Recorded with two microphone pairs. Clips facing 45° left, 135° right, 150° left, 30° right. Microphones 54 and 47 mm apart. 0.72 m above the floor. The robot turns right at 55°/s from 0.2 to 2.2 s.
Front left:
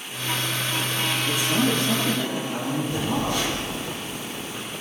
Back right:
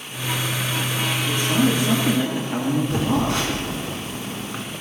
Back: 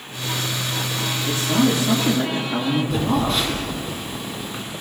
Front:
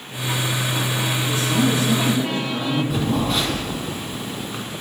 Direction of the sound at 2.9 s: 120° right.